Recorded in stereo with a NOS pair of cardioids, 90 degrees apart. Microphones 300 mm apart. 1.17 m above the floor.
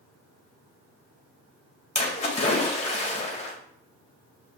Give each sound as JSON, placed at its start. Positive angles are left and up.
{"t": 1.9, "sound": "a splash", "azimuth_deg": 20, "distance_m": 1.1}